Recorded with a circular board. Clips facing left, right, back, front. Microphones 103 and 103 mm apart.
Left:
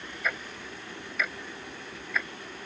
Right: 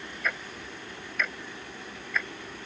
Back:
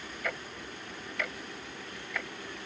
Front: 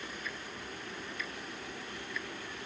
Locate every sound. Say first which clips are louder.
0.2 s ticking: even, back 5 dB; 175° left